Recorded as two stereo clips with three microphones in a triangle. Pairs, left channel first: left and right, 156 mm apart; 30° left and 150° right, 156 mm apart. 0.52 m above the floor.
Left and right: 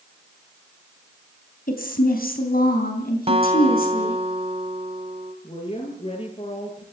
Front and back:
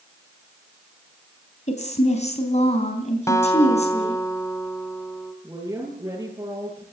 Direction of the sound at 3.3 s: 40° right.